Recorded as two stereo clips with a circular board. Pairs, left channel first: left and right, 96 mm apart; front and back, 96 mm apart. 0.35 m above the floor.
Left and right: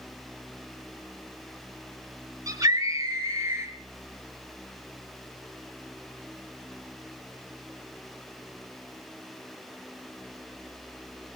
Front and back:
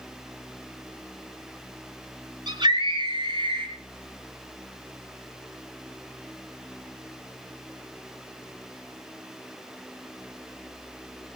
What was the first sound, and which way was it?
A scream, 145° right.